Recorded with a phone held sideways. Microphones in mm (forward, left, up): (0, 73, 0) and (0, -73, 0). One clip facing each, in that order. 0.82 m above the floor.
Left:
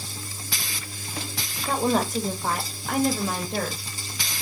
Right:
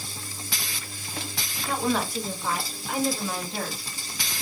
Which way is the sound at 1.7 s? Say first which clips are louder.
Left 3 dB; 30° left (ahead or behind).